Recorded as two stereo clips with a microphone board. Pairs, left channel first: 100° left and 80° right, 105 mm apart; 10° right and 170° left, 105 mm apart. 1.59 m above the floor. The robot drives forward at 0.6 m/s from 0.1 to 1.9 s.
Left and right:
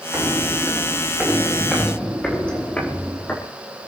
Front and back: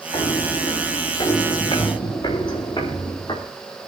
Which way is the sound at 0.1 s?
15° right.